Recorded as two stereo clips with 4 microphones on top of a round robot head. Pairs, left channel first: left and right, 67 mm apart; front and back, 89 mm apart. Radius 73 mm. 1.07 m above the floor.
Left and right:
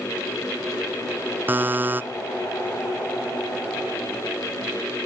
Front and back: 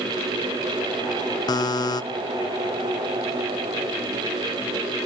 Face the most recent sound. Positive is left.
turn(degrees=-30)